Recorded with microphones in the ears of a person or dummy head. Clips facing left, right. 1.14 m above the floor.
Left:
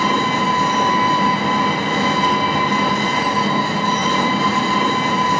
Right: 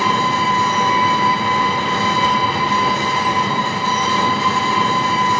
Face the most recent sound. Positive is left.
turn(degrees=40)  # may be behind; listen again after turning